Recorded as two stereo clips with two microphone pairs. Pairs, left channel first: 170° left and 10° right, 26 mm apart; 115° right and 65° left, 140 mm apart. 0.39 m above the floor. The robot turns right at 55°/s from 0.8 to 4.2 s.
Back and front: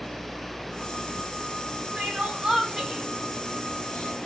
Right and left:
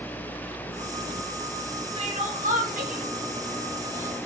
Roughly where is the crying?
Ahead.